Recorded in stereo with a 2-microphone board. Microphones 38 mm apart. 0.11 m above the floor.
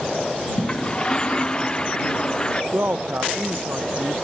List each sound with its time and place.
0.6 s a toilet flushing: 25° left (ahead or behind)
2.7 s a man speaking: 60° right (ahead or behind)